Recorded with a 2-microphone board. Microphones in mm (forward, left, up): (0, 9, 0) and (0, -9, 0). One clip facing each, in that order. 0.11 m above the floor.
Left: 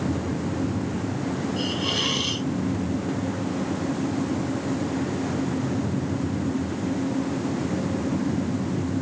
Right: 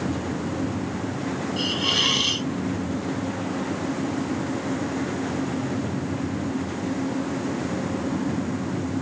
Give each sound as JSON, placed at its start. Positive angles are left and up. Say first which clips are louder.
{"t": 1.6, "sound": "a hiss", "louder": "right 5 dB", "side_deg": -15}